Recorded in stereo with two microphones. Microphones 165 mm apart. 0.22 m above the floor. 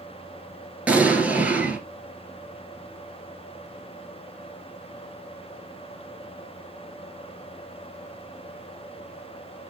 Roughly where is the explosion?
Centre.